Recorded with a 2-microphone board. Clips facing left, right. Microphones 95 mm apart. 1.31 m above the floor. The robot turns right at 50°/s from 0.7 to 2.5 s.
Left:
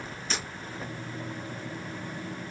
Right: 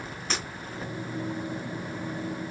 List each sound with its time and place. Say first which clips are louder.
0.3 s breaking glass: right 2 dB; 60° right (ahead or behind), 6 m